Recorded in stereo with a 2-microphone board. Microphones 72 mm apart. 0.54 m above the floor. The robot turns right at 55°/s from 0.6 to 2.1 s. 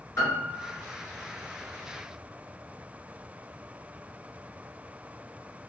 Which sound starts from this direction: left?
A piano, at 0.2 s.